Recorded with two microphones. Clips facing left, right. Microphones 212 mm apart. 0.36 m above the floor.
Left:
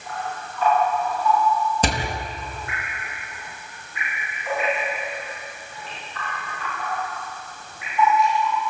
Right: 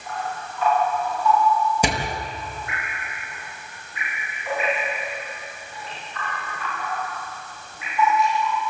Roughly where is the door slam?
Centre.